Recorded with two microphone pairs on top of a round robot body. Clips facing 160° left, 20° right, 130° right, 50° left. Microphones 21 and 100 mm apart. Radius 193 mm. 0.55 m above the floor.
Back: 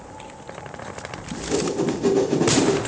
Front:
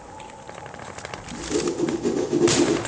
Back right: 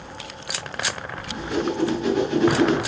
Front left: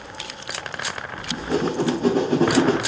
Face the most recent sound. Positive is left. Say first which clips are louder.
# back 1 dB, front left 2 dB
turn(degrees=100)